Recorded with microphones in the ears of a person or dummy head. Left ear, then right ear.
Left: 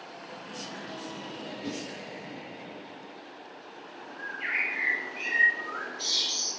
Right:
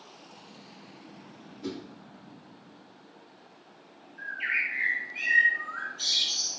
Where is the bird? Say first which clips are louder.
Right 1 dB; 50° right (ahead or behind), 1.0 m.